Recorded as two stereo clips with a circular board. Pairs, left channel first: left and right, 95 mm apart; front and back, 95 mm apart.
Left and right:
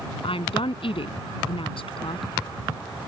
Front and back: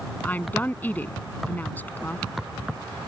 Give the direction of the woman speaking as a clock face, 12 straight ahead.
10 o'clock.